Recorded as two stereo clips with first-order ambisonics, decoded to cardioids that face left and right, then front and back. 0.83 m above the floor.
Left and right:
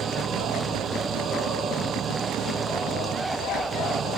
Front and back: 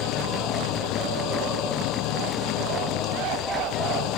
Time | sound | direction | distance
0.0 | an engine running | 30° right | ?